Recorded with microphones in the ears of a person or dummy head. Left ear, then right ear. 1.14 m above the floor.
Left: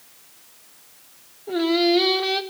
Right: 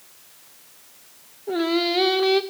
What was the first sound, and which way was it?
Singing, 10° right (ahead or behind).